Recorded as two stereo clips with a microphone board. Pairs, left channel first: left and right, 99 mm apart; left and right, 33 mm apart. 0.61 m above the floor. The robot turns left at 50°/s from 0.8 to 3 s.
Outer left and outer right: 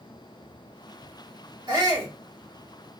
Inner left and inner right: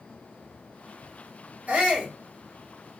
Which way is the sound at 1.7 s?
45° right (ahead or behind).